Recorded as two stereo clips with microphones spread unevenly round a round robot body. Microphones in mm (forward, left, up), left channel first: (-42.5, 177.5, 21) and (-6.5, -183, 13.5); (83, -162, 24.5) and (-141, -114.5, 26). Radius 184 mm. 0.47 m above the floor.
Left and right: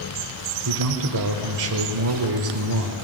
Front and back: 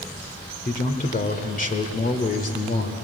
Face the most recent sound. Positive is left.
turn(degrees=-60)